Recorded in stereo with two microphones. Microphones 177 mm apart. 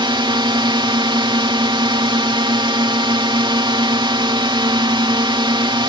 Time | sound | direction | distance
0.0 | a drone | 25° right (ahead or behind) | ?